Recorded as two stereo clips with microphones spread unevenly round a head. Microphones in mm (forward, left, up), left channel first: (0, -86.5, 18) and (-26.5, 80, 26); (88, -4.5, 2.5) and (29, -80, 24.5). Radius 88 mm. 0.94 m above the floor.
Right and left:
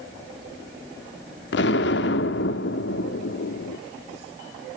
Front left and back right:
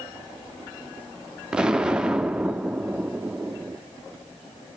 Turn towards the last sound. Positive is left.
turn(degrees=-50)